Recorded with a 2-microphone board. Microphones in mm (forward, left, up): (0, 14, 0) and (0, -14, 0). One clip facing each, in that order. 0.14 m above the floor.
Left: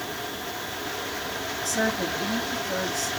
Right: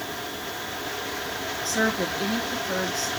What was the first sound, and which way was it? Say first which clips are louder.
A woman speaking: right 2 dB; 35° right (ahead or behind).